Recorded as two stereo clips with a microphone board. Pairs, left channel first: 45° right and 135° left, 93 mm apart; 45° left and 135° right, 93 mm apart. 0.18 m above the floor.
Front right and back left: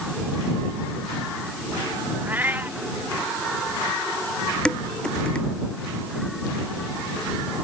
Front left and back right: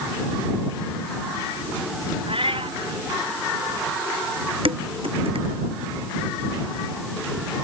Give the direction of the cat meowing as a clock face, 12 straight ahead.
5 o'clock.